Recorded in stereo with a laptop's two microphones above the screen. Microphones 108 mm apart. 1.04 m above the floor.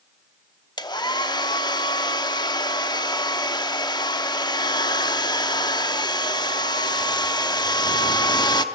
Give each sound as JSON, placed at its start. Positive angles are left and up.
{"t": 0.8, "sound": "a hair dryer", "side_deg": 40, "distance_m": 0.8}